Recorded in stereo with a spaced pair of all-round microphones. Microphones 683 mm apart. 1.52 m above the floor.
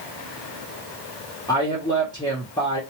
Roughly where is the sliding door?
I don't hear a sliding door.